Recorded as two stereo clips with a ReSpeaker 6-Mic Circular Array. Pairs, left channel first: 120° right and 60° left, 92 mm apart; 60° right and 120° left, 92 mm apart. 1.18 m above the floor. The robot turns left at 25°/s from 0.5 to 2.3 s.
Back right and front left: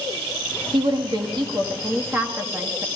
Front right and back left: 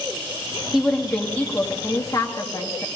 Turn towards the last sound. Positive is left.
turn(degrees=-10)